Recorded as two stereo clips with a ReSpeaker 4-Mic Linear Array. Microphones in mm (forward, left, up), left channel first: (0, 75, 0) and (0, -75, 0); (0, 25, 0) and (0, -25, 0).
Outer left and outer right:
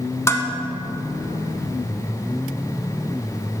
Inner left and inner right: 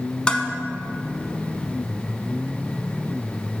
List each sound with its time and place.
0.3 s dishes clattering: 20° left (ahead or behind), 0.7 m